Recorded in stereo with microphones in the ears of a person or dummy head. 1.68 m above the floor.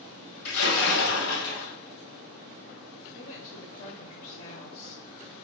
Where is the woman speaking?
40° left (ahead or behind), 0.7 m.